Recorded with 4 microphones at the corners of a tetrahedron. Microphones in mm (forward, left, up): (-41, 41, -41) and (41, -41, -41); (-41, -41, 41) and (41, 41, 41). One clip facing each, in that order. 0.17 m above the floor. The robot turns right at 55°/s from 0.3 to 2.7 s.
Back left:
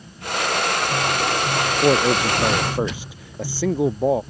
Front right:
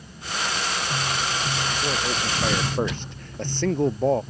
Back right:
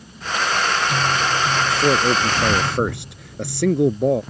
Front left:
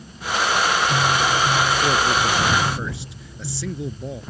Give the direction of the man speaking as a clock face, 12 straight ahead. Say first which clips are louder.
Back left 13 dB, back right 2 dB; 7 o'clock.